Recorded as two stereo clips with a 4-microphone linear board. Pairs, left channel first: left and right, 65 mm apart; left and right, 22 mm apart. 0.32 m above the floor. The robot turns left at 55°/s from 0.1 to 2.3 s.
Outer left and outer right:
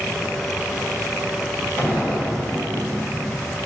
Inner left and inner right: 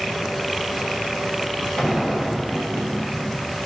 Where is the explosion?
30° left (ahead or behind), 1.8 m; by 3.6 s 10° left (ahead or behind), 1.8 m.